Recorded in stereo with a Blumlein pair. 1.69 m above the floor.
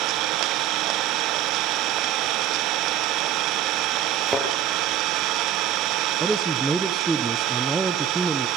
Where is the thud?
5° right, 8 m.